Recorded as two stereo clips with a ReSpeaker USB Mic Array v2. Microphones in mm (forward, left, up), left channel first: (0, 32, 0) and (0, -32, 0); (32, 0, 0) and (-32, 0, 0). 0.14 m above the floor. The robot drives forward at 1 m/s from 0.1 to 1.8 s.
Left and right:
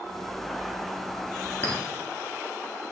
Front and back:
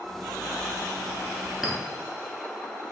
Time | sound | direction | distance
1.6 | a clink | 100° left | 1.2 m